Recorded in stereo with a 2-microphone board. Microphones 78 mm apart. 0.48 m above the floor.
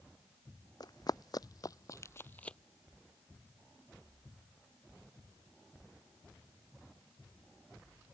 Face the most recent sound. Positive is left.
turn(degrees=10)  # may be behind; listen again after turning